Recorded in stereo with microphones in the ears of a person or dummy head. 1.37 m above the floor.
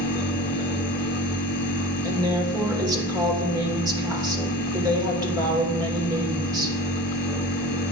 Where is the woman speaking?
20° right (ahead or behind), 2.5 m.